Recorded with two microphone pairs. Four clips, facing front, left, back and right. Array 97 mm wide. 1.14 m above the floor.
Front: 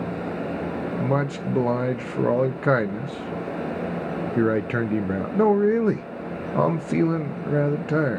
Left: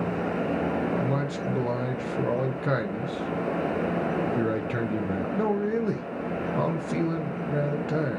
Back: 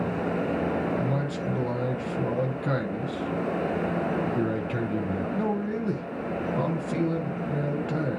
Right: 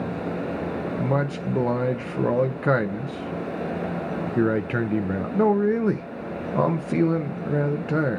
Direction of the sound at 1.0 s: 30° right.